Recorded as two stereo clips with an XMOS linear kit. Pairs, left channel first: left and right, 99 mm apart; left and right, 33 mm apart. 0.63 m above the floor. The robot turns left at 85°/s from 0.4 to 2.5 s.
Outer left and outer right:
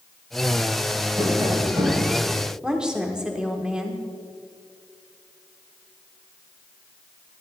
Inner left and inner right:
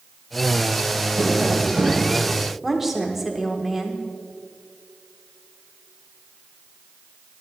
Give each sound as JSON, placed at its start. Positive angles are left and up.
{"t": 1.2, "sound": "tapping", "azimuth_deg": -30, "distance_m": 3.0}
{"t": 2.6, "sound": "a woman speaking", "side_deg": -10, "distance_m": 1.4}